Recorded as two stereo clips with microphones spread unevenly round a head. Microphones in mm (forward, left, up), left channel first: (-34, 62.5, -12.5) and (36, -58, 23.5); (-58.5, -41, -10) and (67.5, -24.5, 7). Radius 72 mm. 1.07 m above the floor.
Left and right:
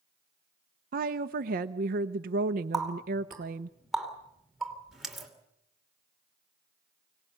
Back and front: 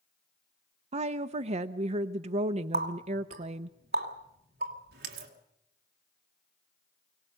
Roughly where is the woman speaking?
Ahead right.